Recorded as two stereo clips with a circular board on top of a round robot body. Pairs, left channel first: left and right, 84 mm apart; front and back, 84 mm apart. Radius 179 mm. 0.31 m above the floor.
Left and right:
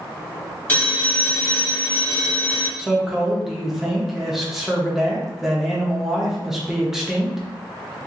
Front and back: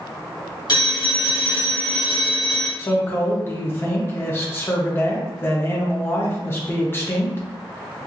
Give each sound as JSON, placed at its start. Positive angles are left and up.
{"t": 0.7, "sound": "a phone ringing", "azimuth_deg": 20, "distance_m": 1.9}
{"t": 2.8, "sound": "a man speaking", "azimuth_deg": -10, "distance_m": 1.0}